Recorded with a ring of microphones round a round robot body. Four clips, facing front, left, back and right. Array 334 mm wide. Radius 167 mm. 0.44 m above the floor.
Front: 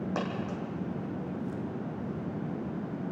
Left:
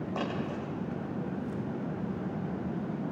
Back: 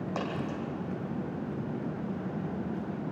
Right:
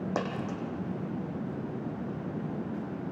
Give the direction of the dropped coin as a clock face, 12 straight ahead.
3 o'clock.